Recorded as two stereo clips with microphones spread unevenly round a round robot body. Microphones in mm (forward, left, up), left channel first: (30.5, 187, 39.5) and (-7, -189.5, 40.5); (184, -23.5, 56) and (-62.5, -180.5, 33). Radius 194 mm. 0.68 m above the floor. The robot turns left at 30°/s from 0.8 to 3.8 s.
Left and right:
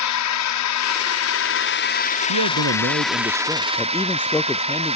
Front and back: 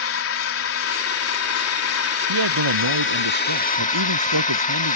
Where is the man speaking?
145° right; by 5.0 s 170° left.